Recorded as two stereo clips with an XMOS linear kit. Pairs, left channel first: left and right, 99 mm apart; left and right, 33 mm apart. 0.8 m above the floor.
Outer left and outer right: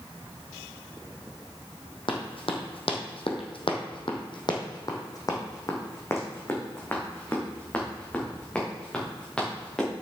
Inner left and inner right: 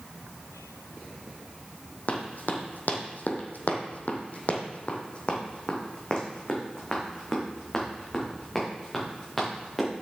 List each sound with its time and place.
2.1 s running footsteps: 60° left (ahead or behind), 2 m; by 9.9 s 10° left (ahead or behind), 5 m